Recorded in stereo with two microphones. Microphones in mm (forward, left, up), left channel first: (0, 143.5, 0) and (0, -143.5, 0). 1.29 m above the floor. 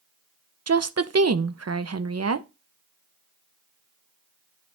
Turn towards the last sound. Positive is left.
turn(degrees=-55)  # may be behind; listen again after turning